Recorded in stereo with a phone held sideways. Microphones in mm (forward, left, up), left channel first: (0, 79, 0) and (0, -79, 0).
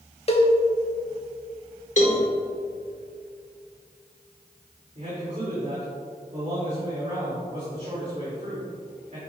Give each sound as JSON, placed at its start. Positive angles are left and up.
{"t": 0.3, "sound": "a cowbell", "side_deg": 40, "distance_m": 1.1}
{"t": 2.0, "sound": "a cowbell", "side_deg": 50, "distance_m": 1.5}
{"t": 5.0, "sound": "a man speaking", "side_deg": -50, "distance_m": 2.5}